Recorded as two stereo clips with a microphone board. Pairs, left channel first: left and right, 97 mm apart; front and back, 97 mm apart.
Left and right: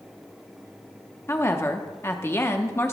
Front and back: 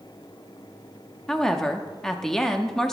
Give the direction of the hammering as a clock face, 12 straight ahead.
No hammering in this recording.